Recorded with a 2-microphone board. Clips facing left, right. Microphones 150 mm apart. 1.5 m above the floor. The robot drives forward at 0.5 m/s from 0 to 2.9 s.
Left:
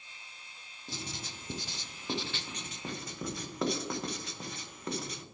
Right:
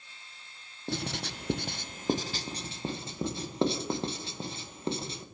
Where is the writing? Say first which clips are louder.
Right 8 dB; 65° right (ahead or behind), 0.5 m; by 5.2 s 30° right (ahead or behind), 0.9 m.